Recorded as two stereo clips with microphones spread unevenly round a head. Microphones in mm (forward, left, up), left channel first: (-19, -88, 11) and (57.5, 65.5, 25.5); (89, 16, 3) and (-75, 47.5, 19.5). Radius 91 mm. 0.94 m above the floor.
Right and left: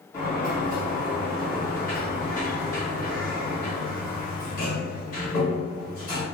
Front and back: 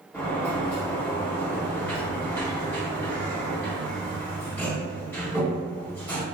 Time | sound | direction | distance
0.1 | a sliding door | 85° right | 1.7 m